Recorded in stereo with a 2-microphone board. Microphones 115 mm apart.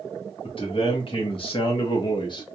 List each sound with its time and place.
0.4 s a man speaking: 50° left (ahead or behind), 1.6 m; by 2.5 s 40° left (ahead or behind), 1.0 m